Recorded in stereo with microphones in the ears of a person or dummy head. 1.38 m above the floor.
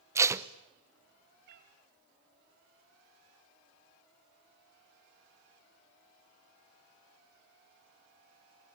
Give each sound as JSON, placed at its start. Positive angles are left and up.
{"t": 0.1, "sound": "tape being pulled", "side_deg": -15, "distance_m": 0.5}
{"t": 1.5, "sound": "a cat meowing", "side_deg": -55, "distance_m": 2.0}